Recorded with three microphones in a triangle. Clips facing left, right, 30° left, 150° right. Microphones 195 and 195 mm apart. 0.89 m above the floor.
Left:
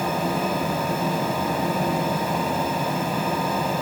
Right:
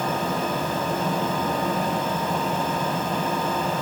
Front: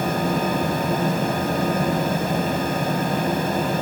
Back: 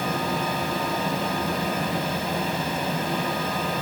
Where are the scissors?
I don't hear scissors.